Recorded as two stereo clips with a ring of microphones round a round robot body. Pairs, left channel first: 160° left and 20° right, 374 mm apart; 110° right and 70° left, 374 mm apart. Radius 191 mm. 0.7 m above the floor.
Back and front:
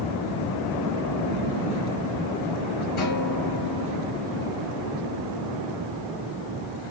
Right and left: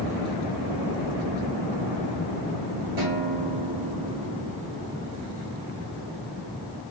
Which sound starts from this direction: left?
A guitar, at 3.0 s.